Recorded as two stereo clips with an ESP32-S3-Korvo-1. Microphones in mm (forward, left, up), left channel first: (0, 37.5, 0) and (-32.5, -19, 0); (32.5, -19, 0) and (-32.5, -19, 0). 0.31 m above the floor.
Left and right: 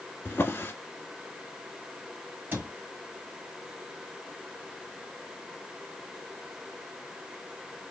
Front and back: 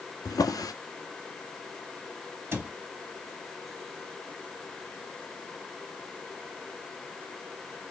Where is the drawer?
5° left, 0.9 m.